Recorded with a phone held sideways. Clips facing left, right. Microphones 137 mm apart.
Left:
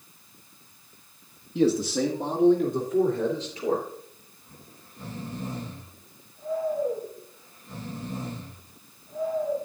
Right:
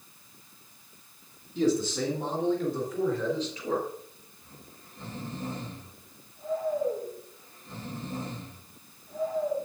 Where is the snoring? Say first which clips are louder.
Even; 15° left (ahead or behind), 4.5 m.